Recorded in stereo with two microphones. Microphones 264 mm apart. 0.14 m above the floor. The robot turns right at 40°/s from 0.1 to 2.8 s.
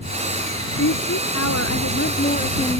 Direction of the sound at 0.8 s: 85° left.